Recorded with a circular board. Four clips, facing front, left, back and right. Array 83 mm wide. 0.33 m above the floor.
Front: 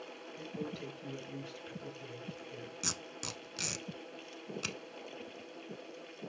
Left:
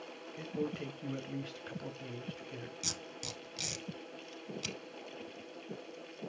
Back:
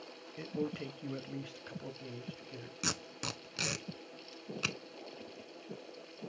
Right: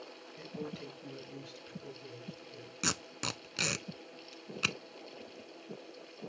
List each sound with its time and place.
0.4 s a man speaking: 155° left, 1.3 m; by 2.7 s 105° left, 2 m
2.8 s tape being pulled: 115° right, 0.6 m